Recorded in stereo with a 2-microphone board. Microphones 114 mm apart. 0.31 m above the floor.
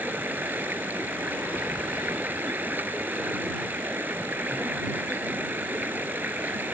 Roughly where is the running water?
Centre.